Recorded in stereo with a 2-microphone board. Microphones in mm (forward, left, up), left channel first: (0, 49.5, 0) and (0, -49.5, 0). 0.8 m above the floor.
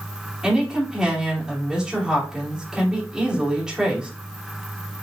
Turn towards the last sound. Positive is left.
turn(degrees=-10)  # may be behind; listen again after turning